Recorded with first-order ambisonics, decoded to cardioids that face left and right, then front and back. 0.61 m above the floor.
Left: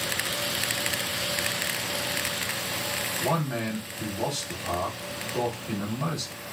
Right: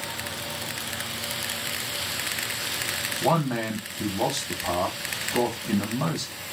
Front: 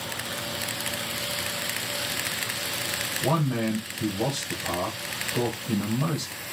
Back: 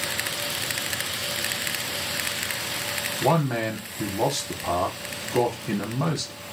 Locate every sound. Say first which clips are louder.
3.2 s a man speaking: right 7 dB, back 5 dB; 150° right, 1.0 m